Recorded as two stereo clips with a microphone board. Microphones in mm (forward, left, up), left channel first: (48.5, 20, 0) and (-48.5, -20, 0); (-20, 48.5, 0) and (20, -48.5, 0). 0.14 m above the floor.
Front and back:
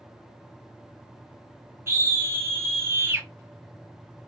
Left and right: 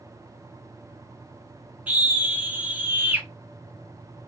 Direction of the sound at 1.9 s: 125° right.